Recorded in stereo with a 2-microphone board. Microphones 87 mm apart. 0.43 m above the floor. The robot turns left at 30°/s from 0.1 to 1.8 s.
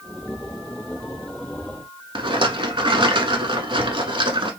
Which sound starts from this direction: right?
A rattle, at 2.1 s.